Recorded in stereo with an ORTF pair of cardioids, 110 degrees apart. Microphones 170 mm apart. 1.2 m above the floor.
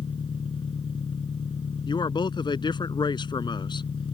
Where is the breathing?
I don't hear breathing.